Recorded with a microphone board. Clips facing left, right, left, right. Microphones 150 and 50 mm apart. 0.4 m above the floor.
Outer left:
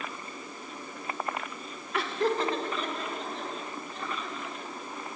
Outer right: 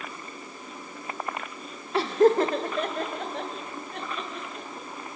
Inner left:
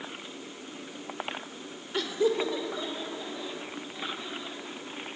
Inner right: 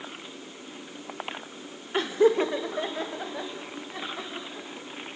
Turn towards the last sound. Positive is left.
turn(degrees=-75)  # may be behind; listen again after turning